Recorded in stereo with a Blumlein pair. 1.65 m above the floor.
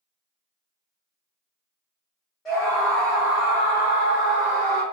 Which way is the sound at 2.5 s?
25° left.